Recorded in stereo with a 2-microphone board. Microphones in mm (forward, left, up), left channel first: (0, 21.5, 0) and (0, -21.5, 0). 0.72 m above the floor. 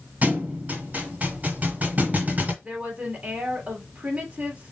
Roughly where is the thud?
Right.